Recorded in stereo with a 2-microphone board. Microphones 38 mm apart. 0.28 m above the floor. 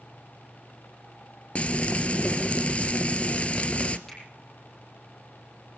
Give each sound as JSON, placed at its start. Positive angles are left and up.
{"t": 1.6, "sound": "frying", "side_deg": 35, "distance_m": 0.9}
{"t": 4.1, "sound": "a finger snap", "side_deg": 20, "distance_m": 7.5}